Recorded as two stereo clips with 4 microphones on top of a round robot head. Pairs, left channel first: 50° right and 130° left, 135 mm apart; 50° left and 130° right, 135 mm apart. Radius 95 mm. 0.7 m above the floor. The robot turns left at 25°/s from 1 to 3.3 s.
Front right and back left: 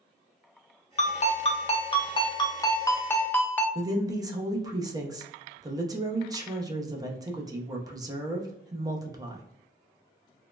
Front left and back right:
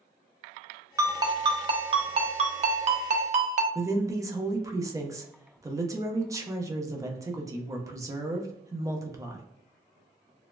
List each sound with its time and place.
1.0 s a ringtone: 70° right, 0.7 m; by 3.6 s 125° right, 0.7 m
3.8 s a woman speaking: 175° left, 0.8 m